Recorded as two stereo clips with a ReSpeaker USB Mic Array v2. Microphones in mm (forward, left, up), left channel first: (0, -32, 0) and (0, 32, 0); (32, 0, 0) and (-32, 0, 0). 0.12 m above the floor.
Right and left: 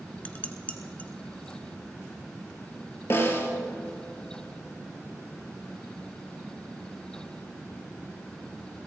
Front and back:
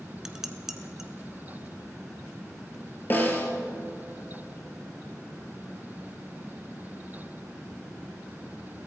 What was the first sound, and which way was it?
Dishes clattering, 110° right.